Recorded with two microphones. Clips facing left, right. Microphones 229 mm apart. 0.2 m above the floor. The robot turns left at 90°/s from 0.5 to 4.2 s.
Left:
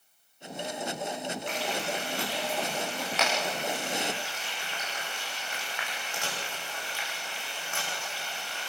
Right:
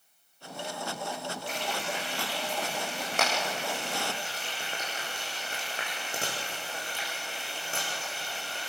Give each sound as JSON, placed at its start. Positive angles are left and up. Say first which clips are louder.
{"t": 1.5, "sound": "frying", "louder": "left 2 dB", "side_deg": 75, "distance_m": 9.5}